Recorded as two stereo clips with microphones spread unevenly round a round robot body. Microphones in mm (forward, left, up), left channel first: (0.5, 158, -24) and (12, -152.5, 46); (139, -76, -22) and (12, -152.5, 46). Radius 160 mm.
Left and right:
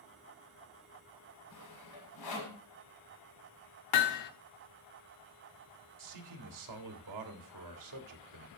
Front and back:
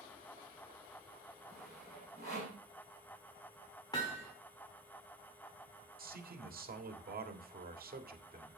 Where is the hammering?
110° left, 0.9 m.